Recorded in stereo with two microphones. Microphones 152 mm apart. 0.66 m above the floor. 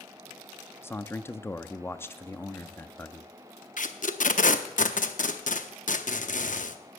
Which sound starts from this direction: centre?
A man speaking, at 0.8 s.